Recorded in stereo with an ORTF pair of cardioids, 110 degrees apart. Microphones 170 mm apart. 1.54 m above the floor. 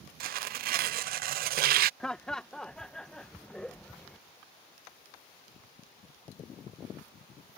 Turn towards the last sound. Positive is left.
turn(degrees=5)